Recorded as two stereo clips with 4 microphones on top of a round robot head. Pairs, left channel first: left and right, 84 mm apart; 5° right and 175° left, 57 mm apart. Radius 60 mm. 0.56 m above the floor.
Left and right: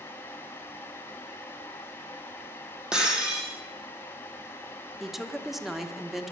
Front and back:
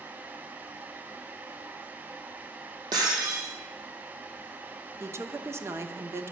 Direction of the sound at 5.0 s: 175° right.